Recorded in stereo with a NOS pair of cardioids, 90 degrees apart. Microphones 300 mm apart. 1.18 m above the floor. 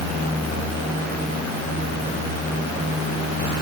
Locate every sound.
Only background noise.